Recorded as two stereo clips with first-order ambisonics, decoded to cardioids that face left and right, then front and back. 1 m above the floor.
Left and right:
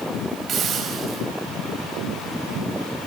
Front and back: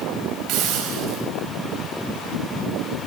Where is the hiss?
145° right, 3.5 m.